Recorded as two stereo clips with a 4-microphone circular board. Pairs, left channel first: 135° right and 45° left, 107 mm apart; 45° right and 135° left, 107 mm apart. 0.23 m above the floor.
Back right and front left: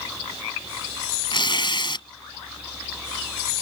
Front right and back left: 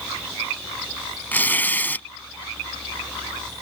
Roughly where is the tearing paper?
Behind right.